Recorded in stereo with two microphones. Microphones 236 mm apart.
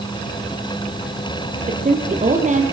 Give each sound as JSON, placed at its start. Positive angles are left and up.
{"t": 1.7, "sound": "a woman speaking", "side_deg": -35, "distance_m": 3.5}